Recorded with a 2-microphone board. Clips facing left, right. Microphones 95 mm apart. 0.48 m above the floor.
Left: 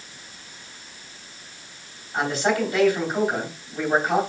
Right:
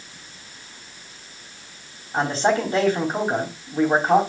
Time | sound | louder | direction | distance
2.1 | a man speaking | right 2 dB | 30° right (ahead or behind) | 3.5 m